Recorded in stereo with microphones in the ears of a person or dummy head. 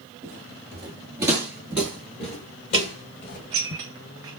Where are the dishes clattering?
20° right (ahead or behind), 0.5 m.